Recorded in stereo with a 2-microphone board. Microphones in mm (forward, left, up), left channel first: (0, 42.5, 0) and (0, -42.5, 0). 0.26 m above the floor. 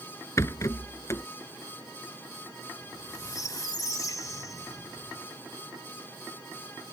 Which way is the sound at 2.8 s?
45° left (ahead or behind).